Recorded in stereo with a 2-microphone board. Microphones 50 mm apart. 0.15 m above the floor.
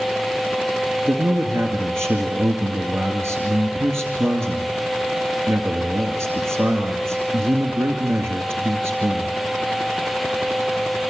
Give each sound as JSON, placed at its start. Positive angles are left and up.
{"t": 1.1, "sound": "a man speaking", "side_deg": -55, "distance_m": 2.5}